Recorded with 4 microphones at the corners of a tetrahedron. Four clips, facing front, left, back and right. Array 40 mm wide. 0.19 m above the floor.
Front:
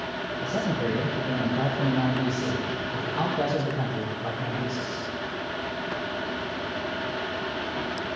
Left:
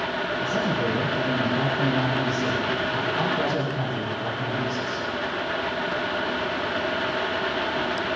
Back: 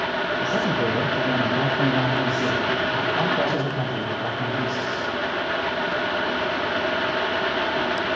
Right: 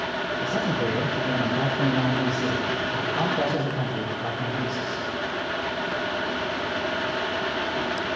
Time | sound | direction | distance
0.4 | a man speaking | 170° right | 4 m